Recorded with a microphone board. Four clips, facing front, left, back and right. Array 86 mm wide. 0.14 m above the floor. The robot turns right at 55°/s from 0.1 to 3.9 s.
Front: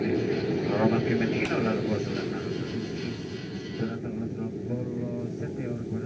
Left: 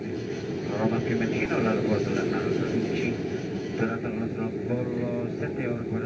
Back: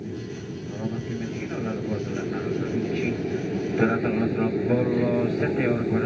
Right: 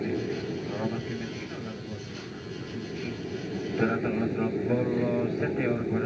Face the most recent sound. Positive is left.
turn(degrees=-170)